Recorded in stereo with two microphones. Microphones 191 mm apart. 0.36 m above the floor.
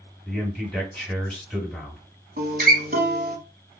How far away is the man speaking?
About 1.8 m.